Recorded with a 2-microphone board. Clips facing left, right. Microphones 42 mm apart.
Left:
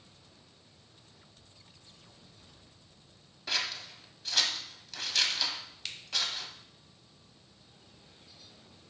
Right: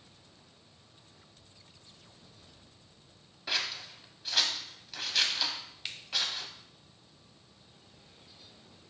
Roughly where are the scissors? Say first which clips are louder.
Even; centre.